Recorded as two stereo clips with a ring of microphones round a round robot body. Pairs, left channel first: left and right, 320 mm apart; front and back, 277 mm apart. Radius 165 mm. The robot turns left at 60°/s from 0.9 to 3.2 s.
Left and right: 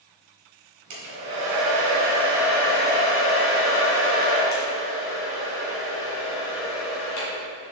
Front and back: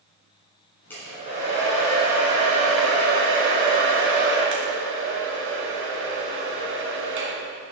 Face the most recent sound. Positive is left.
turn(degrees=140)